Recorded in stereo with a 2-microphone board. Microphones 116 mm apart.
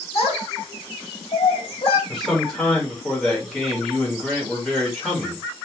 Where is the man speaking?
5° left (ahead or behind), 1.5 m.